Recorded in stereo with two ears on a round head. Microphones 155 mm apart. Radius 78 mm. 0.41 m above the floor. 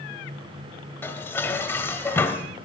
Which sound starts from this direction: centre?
Dishes clattering, at 1.0 s.